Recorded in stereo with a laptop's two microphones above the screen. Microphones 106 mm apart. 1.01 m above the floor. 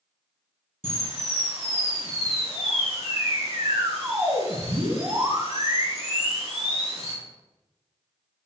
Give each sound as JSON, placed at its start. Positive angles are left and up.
{"t": 0.8, "sound": "a camera shutter", "side_deg": -65, "distance_m": 2.5}